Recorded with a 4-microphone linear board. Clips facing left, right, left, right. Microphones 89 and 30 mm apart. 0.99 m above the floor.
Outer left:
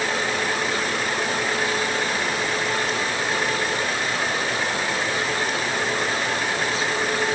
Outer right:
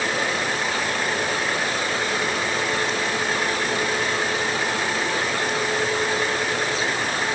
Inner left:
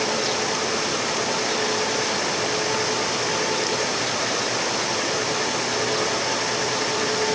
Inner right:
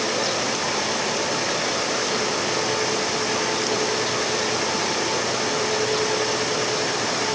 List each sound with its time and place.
Only background noise.